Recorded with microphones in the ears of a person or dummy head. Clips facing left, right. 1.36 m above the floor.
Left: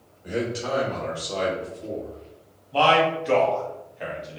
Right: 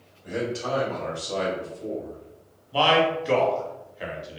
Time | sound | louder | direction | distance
0.2 | a man speaking | left 1 dB | 25° left (ahead or behind) | 1.1 m
2.7 | a man speaking | left 1 dB | 5° right (ahead or behind) | 0.9 m